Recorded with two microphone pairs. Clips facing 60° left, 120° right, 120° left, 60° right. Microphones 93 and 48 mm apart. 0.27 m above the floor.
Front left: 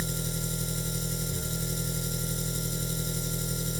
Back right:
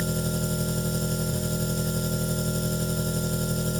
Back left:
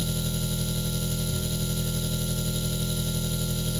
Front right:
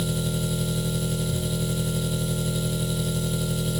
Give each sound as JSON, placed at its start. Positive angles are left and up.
{"t": 0.0, "sound": "an engine running", "azimuth_deg": -135, "distance_m": 1.1}